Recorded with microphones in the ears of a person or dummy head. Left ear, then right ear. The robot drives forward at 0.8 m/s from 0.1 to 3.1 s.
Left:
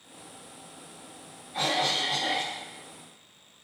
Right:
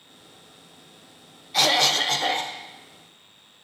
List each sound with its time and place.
1.5 s a cough: 85° right, 0.6 m; by 2.6 s 40° right (ahead or behind), 1.0 m